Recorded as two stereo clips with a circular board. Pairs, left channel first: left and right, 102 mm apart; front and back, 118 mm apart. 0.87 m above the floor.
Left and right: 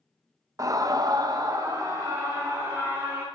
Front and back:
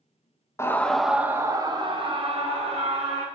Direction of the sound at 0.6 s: 50° right.